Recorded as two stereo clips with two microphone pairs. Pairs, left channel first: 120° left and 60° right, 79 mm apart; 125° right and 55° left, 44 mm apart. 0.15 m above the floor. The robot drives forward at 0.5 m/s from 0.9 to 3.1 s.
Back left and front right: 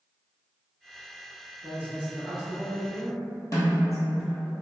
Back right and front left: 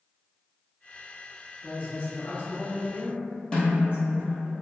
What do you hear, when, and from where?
1.6 s a woman speaking: 115° right, 1.4 m; by 4.5 s 145° right, 1.7 m
3.5 s a snare drum: 170° left, 1.3 m